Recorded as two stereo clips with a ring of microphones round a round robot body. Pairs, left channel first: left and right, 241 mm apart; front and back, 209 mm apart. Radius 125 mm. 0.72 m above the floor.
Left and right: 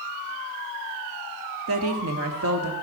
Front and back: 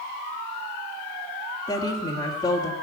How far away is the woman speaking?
About 1.9 m.